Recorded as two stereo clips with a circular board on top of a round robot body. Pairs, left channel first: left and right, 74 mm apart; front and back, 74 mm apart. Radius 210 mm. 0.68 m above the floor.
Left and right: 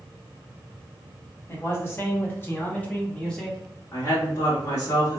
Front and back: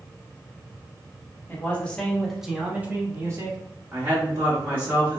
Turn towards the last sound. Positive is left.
turn(degrees=125)